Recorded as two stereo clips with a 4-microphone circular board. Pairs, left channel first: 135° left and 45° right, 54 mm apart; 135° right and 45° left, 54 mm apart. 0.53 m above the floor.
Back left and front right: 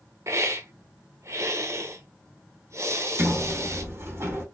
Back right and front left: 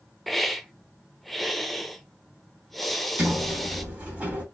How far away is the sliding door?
About 4 m.